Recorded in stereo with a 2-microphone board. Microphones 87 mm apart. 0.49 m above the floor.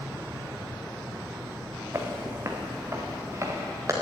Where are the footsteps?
30° right (ahead or behind), 1.7 m; by 3.9 s 35° right (ahead or behind), 3.5 m.